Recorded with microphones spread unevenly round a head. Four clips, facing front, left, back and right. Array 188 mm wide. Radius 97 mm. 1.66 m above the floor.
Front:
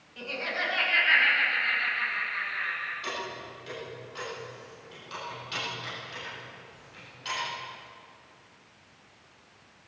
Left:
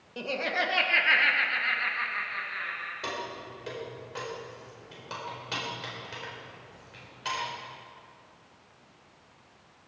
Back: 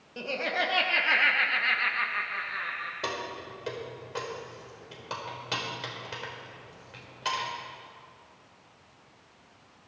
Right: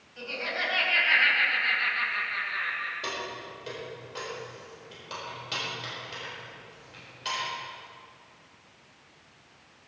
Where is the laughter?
125° left, 1.7 m; by 2.9 s 150° right, 2.5 m.